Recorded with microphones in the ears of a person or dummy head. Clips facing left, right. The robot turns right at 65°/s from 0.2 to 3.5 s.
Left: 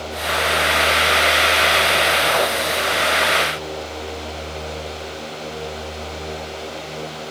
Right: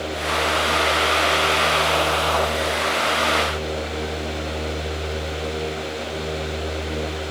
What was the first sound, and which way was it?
Only background noise.